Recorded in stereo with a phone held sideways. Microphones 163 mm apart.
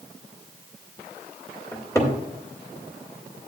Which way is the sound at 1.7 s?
20° left (ahead or behind).